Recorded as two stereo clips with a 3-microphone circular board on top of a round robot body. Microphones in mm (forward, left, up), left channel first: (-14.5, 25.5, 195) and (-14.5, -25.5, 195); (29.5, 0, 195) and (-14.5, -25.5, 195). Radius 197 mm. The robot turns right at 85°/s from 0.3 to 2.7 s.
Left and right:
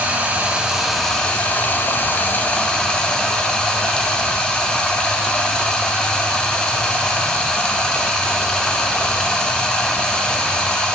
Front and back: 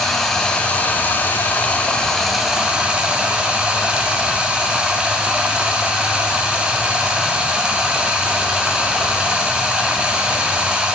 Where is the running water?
50° right, 1.0 m; by 11.0 s 150° left, 1.0 m.